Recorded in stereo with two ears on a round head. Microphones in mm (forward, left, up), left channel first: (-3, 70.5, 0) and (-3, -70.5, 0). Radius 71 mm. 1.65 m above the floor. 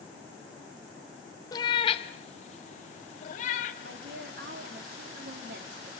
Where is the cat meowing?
25° left (ahead or behind), 0.9 m; by 3.7 s 45° left (ahead or behind), 2.5 m.